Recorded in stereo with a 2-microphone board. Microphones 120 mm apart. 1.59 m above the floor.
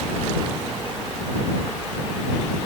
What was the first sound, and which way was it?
Only background noise.